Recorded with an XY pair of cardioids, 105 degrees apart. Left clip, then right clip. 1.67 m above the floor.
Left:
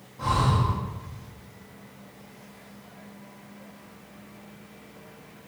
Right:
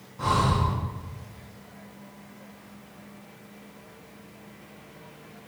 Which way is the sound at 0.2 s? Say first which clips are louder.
Right 1 dB; 35° right.